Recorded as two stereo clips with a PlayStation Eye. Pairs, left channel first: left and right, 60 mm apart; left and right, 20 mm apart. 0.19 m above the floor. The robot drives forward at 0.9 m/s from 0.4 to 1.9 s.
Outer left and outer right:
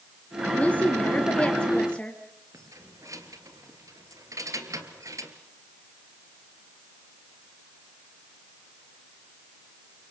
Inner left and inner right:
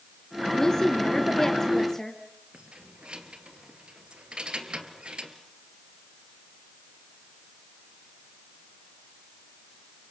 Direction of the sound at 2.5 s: 70° right (ahead or behind).